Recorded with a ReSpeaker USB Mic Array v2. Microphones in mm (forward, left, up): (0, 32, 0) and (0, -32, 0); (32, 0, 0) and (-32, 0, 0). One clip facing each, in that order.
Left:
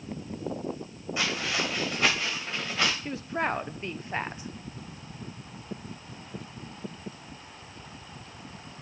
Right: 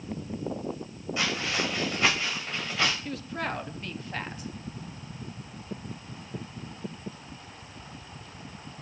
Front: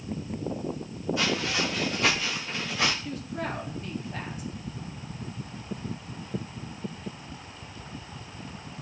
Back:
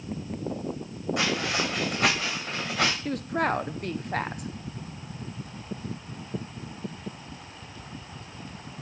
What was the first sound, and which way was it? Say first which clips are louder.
Footsteps: even, back 1 dB; 160° left.